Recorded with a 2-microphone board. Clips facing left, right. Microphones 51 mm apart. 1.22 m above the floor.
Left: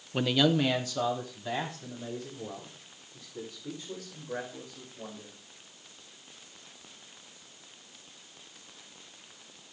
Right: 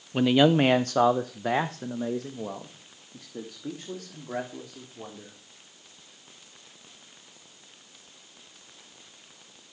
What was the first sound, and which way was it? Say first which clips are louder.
A man speaking: right 6 dB; 5° right (ahead or behind).